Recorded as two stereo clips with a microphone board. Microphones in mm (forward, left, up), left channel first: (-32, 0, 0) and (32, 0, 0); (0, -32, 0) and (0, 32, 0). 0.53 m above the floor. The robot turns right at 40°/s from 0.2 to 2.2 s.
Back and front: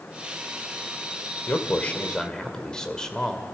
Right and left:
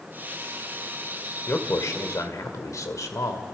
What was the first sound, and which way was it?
A man speaking, 135° right.